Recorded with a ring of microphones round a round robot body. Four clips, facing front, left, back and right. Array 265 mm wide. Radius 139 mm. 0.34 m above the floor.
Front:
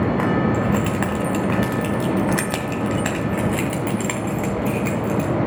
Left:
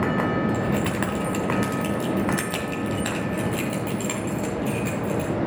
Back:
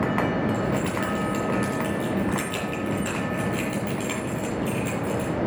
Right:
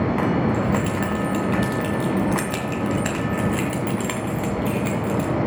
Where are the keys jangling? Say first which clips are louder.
Right 2 dB, front 5 dB; 35° left, 2.0 m; by 5.3 s 40° right, 2.5 m.